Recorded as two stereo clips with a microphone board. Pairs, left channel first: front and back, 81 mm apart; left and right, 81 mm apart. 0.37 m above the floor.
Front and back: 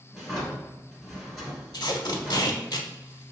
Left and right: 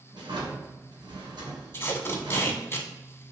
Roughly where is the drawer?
Right.